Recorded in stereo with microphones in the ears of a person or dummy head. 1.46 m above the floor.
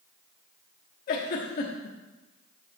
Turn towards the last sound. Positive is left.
turn(degrees=45)  # may be behind; listen again after turning